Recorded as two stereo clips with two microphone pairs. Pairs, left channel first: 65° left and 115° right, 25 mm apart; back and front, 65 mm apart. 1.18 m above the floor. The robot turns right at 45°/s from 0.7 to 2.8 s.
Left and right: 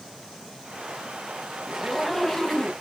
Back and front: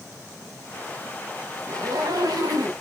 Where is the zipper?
30° right, 0.8 m; by 2.7 s 15° left, 0.8 m.